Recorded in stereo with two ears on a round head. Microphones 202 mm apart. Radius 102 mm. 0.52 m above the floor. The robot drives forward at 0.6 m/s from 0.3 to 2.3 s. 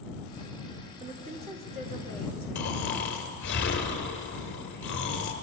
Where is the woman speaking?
30° right (ahead or behind), 1.6 m; by 2.5 s 25° right (ahead or behind), 2 m.